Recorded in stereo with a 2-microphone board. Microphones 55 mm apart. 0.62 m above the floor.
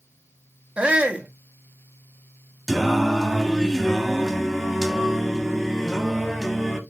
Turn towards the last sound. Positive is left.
turn(degrees=0)  # may be behind; listen again after turning